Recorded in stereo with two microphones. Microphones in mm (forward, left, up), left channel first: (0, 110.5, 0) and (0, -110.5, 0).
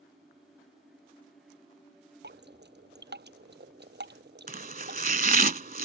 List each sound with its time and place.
2.2 s dripping: 50° right (ahead or behind)
4.5 s chopping: 40° right (ahead or behind)